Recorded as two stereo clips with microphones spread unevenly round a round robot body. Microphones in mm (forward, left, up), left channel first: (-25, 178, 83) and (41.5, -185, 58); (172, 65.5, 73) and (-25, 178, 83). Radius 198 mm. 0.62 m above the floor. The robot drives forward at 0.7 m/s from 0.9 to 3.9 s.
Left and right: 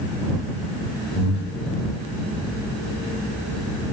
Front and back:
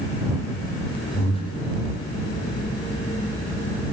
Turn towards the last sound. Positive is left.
turn(degrees=150)